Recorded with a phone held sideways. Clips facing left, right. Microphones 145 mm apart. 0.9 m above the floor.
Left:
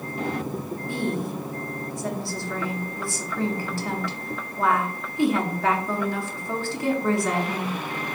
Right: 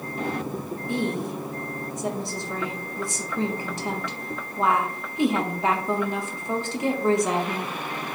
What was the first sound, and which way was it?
A woman speaking, 20° right (ahead or behind).